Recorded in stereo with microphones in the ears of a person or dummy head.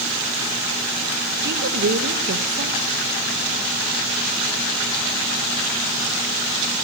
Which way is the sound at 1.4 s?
65° right (ahead or behind).